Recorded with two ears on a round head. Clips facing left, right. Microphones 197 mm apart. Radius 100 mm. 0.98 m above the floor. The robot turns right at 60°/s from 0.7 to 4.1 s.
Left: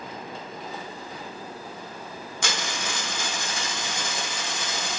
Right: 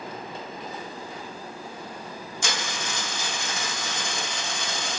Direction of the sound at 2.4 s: 75° left.